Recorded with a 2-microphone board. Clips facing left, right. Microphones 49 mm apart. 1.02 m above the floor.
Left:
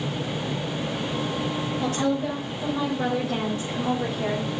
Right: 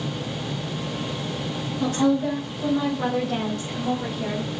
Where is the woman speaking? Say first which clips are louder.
Right 5 dB; 5° right (ahead or behind), 4.5 m; by 4.5 s 30° left (ahead or behind), 3 m.